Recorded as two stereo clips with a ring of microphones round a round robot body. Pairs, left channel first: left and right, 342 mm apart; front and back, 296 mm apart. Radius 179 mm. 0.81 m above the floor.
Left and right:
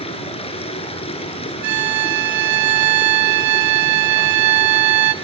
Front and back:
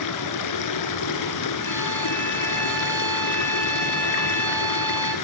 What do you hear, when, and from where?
0.0 s running water: 15° left, 2.5 m
1.6 s a violin: 85° right, 1.5 m